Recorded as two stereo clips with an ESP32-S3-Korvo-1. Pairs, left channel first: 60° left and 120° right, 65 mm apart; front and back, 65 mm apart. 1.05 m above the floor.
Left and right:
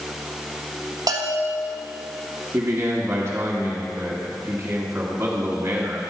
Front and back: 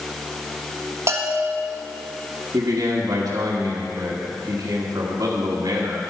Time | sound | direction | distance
1.1 | a bell | 140° right | 1.3 m
2.5 | a man speaking | 175° right | 1.7 m